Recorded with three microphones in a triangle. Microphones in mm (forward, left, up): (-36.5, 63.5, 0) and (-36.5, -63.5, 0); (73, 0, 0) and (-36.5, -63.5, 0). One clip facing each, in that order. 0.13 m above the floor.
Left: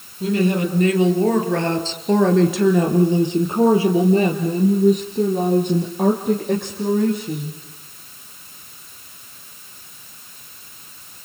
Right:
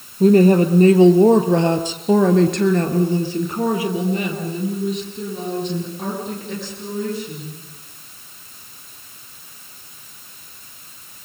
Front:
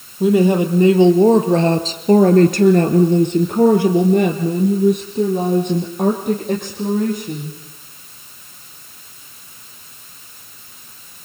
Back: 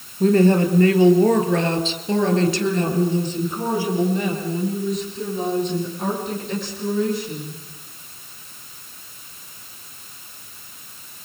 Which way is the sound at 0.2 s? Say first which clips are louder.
Right 7 dB, front 2 dB; 50° right.